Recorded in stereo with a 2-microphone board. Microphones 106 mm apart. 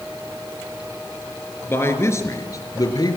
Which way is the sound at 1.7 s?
20° left (ahead or behind).